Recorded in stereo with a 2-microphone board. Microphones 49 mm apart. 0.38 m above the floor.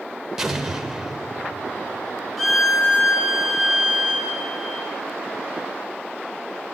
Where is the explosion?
10° right (ahead or behind), 1.2 m.